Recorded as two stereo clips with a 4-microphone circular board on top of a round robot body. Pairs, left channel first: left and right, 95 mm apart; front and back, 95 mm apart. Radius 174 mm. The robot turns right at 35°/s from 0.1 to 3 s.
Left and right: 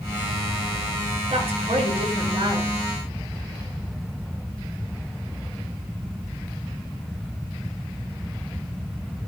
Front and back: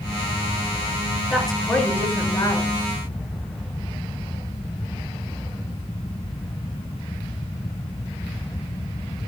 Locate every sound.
1.3 s a woman speaking: 95° right, 7 m; by 2.7 s 45° right, 7 m